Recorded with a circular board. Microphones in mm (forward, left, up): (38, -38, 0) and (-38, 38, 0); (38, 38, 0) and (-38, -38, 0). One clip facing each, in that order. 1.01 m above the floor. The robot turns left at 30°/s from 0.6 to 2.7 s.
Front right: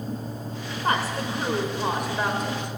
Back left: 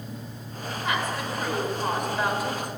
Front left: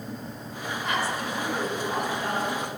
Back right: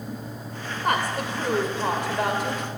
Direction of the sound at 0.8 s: 95° right.